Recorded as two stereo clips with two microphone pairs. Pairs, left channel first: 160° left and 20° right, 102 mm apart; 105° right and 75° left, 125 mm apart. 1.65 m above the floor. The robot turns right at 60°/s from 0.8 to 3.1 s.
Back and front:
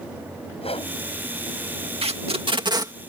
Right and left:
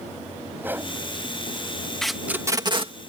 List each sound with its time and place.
0.6 s a whoosh: 150° left; by 0.9 s 155° left
2.0 s tape being pulled: 20° right; by 2.9 s 35° left